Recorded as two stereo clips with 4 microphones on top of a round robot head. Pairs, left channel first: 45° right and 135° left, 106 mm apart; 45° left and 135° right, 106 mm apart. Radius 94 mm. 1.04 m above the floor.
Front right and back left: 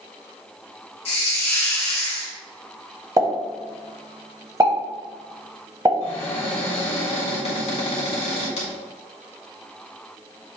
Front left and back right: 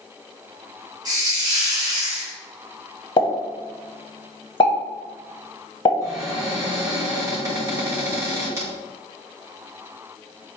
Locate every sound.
1.1 s a hiss: 80° right, 1.0 m
3.2 s a pop: 80° left, 1.0 m
6.0 s a cupboard door: 70° right, 1.3 m